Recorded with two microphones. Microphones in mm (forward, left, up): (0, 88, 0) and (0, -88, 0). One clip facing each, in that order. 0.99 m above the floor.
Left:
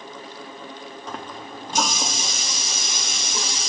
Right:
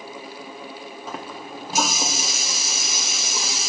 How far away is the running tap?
About 0.9 m.